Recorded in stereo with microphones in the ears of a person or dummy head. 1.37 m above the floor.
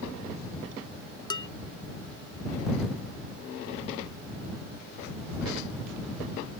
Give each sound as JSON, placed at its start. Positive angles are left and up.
{"t": 1.3, "sound": "dishes clattering", "side_deg": 25}